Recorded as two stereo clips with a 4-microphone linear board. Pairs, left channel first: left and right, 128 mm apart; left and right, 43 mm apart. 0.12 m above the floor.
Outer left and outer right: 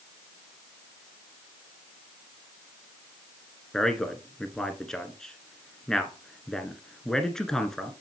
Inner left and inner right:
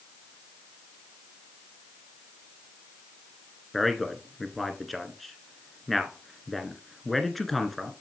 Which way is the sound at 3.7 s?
5° left (ahead or behind).